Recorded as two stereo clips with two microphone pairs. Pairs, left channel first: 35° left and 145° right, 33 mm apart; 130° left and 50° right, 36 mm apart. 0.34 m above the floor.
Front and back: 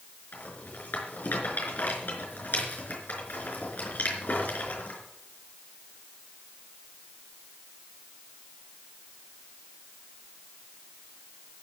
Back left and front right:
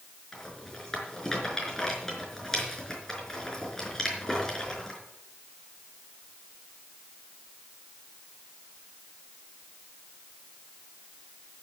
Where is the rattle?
60° left, 4.5 m.